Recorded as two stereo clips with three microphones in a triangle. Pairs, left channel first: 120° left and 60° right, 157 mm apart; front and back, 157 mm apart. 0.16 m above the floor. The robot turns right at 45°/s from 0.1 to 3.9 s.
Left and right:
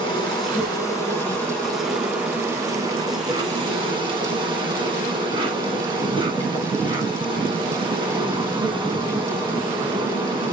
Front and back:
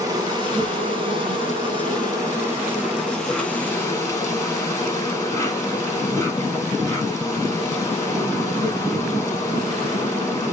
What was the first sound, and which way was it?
An insect, 135° left.